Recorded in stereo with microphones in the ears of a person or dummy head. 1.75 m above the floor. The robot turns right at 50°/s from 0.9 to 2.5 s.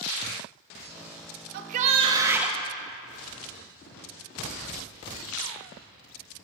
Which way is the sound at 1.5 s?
50° right.